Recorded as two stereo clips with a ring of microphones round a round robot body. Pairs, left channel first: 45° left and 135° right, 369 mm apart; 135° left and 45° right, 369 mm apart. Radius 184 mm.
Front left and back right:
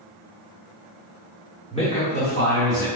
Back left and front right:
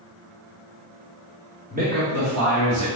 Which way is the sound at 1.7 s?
5° right.